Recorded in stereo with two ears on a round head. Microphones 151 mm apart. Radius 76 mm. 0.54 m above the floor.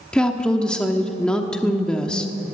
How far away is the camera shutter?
No camera shutter in this recording.